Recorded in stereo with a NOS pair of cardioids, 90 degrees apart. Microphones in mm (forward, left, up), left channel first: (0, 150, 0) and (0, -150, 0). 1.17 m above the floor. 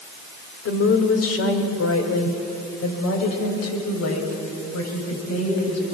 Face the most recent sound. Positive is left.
turn(degrees=60)